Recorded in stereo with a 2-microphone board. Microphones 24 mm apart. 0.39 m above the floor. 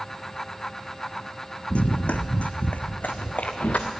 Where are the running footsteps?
55° left (ahead or behind), 1.1 m; by 3.9 s 75° left (ahead or behind), 1.8 m.